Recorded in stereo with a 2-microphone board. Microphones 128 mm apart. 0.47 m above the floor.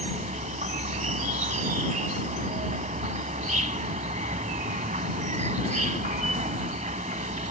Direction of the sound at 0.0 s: 75° right (ahead or behind).